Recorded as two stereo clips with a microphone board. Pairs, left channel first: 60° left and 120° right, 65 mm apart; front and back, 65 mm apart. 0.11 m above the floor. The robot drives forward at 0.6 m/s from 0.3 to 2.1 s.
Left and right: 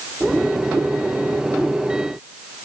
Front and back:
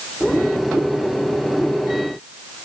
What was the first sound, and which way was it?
Only background noise.